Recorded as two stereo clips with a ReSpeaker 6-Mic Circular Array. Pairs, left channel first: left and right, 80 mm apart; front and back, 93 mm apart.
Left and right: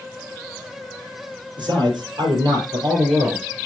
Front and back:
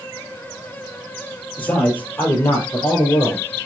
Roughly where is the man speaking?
Right.